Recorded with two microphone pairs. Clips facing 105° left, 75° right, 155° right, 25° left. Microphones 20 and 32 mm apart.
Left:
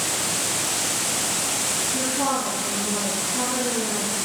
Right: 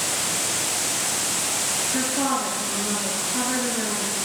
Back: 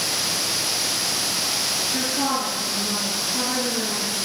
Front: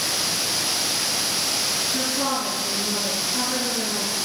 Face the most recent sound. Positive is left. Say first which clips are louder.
# right 1 dB, back 2 dB
turn(degrees=-70)